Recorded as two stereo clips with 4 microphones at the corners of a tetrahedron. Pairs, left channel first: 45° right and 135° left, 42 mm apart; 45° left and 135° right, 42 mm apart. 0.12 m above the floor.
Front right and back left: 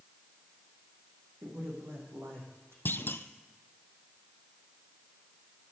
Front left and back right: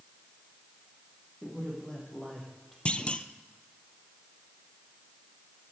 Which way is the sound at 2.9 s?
15° right.